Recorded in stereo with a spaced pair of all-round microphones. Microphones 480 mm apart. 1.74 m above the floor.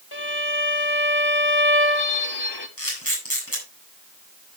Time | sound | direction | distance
0.1 | a violin | 55° left (ahead or behind) | 1.4 m
2.8 | a camera shutter | 25° left (ahead or behind) | 8 m